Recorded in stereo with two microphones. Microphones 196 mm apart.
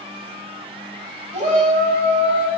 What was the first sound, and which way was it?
A shout, 35° right (ahead or behind).